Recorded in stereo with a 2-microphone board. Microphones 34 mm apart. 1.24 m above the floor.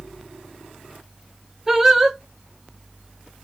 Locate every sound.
1.7 s singing: 10° right (ahead or behind), 0.7 m